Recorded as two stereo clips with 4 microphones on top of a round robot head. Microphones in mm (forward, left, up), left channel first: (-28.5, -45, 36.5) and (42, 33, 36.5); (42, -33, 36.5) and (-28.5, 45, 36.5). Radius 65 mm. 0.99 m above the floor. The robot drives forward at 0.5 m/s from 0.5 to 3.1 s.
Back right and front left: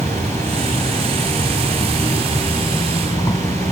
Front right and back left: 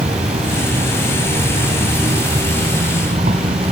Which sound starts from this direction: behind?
An insect, at 0.0 s.